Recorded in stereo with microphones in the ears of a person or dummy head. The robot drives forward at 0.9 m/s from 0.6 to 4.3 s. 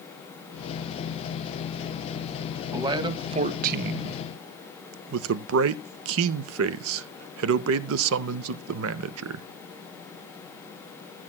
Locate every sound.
2.7 s a man speaking: 20° right (ahead or behind), 1.3 m; by 9.5 s 70° right (ahead or behind), 0.5 m